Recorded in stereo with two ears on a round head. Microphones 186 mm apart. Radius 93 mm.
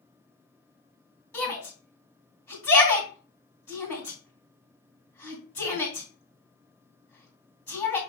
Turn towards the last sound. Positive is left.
turn(degrees=15)  # may be behind; listen again after turning